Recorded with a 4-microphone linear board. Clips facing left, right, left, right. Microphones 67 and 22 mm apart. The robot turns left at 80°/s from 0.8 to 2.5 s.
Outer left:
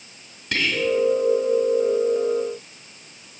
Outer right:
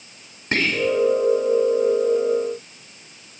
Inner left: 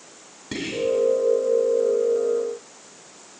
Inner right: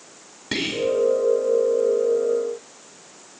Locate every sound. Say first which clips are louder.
0.5 s whispering: outer right 2 dB, inner right 2 dB; 35° right (ahead or behind), 1.8 m; by 0.9 s 30° right (ahead or behind), 1.8 m